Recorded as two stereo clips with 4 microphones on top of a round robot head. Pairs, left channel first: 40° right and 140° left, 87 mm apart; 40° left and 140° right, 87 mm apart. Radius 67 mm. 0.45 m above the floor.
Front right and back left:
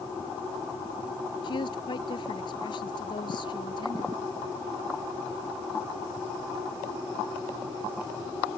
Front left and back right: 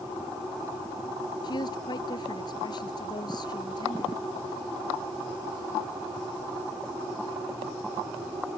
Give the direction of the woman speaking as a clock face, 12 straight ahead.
12 o'clock.